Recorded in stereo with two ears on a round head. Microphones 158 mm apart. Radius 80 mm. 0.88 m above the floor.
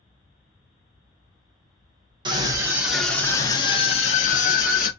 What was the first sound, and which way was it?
A scream, 25° right (ahead or behind).